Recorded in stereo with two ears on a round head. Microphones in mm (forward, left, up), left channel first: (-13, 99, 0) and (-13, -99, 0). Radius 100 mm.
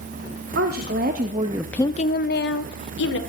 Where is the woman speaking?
45° right (ahead or behind), 1.7 m; by 3.2 s 55° left (ahead or behind), 2.0 m.